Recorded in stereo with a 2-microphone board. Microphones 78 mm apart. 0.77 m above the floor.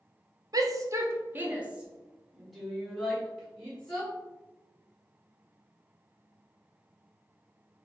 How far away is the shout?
About 0.9 m.